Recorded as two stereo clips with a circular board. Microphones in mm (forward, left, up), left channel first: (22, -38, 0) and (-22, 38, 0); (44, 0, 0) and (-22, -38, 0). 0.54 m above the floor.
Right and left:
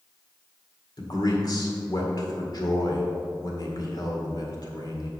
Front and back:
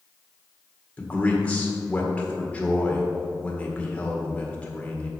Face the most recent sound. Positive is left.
turn(degrees=-40)